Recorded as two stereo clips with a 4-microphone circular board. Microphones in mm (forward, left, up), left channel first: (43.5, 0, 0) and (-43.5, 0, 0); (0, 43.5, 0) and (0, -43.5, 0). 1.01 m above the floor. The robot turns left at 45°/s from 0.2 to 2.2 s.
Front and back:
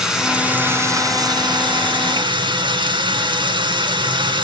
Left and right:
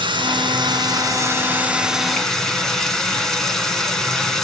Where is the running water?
95° right, 2.0 m; by 4.5 s 175° left, 2.0 m.